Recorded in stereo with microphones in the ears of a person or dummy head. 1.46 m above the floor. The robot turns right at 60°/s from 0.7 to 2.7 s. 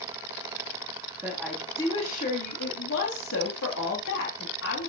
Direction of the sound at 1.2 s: 15° right.